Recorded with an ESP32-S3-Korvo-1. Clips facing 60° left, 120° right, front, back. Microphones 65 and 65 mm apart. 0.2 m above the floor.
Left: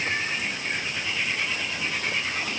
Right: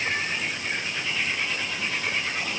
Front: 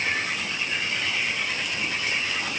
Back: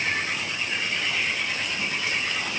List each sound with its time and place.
Only background noise.